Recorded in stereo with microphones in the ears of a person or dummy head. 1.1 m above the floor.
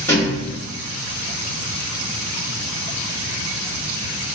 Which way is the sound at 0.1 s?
5° left (ahead or behind).